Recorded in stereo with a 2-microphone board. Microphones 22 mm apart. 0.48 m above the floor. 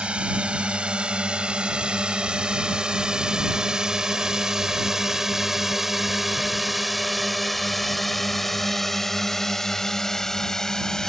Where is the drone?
55° right (ahead or behind); by 11.1 s 25° left (ahead or behind).